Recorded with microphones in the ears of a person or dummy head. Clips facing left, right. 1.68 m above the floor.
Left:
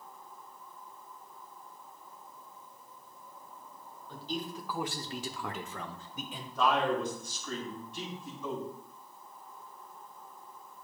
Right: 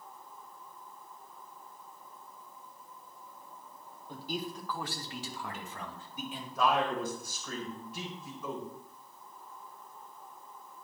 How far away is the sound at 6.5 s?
About 4 m.